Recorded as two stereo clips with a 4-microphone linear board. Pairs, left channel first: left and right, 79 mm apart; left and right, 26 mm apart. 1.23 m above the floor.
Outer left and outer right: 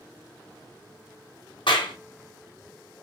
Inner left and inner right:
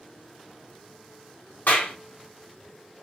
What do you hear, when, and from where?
1.7 s a clap: 75° left (ahead or behind), 0.8 m